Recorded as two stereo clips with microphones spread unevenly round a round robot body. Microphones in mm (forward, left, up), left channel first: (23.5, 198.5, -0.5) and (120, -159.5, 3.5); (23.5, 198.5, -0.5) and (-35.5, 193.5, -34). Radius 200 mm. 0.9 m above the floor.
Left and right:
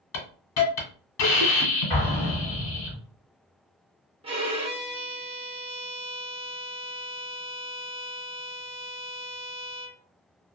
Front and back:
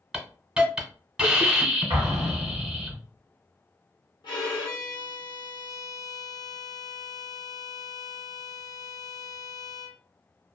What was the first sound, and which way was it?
A hiss, 85° left.